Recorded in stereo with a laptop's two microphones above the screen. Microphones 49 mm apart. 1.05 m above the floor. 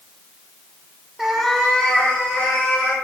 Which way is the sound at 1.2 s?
5° right (ahead or behind).